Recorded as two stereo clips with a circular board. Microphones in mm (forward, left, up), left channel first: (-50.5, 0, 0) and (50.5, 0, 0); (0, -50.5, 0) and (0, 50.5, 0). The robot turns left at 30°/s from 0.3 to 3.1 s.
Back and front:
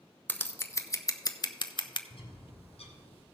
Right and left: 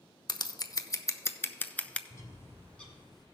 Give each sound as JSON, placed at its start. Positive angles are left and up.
{"t": 0.3, "sound": "scissors", "azimuth_deg": -115, "distance_m": 0.5}
{"t": 2.1, "sound": "a bird", "azimuth_deg": -150, "distance_m": 1.6}